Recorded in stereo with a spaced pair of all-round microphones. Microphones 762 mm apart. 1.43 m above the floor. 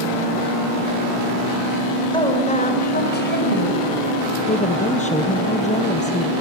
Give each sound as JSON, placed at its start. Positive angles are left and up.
{"t": 2.1, "sound": "a woman speaking", "side_deg": 5, "distance_m": 6.0}
{"t": 4.5, "sound": "a woman speaking", "side_deg": 10, "distance_m": 1.1}